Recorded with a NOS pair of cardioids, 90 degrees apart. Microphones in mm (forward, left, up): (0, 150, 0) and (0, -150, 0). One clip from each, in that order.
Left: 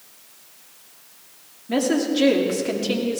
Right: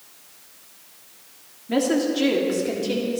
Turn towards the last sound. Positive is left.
turn(degrees=40)